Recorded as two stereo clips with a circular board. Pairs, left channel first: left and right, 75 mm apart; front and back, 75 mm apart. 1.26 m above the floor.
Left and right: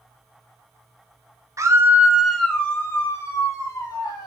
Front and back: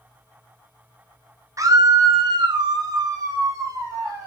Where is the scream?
135° right, 0.6 m; by 4.3 s 130° left, 1.4 m.